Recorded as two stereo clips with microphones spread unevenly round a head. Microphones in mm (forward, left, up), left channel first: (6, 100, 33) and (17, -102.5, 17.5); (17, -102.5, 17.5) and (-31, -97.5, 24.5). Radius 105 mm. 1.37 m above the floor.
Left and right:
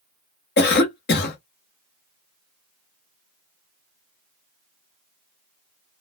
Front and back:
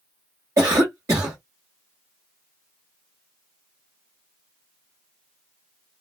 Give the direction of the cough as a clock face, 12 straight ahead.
7 o'clock.